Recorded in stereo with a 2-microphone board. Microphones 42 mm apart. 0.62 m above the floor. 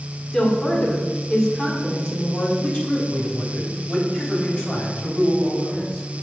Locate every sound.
0.3 s a woman speaking: 10° left (ahead or behind), 2 m
2.6 s a man speaking: 25° left (ahead or behind), 3 m